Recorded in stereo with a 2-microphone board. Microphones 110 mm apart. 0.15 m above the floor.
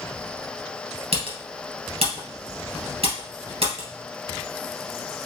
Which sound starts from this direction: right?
Typing on a keyboard, at 1.1 s.